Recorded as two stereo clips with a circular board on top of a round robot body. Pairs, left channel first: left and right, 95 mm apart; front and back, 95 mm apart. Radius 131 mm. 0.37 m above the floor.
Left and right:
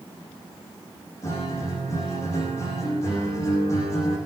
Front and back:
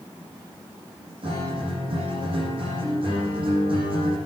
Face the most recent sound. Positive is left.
turn(degrees=150)